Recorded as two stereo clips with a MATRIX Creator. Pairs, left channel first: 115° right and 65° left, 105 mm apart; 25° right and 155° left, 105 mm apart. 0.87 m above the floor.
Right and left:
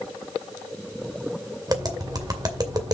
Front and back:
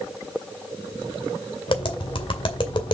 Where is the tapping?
15° left, 2 m.